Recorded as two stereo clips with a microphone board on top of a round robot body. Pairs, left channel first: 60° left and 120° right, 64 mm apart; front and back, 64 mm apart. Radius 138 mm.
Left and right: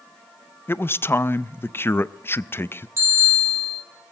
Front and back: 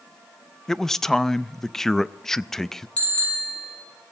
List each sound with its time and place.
0.7 s a man speaking: 80° left, 0.6 m
3.0 s a bicycle bell: 70° right, 6 m